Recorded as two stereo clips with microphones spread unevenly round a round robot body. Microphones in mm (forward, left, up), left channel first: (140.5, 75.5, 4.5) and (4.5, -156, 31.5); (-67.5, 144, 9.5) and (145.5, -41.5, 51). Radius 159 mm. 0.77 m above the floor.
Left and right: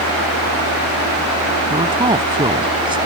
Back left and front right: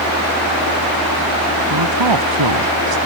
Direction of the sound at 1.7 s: 50° right.